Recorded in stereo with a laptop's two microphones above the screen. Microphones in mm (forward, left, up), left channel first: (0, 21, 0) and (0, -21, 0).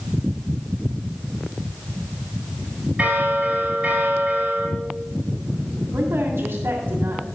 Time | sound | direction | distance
3.0 | a bell | 25° right (ahead or behind) | 5 m
5.9 | a woman speaking | 80° right | 2 m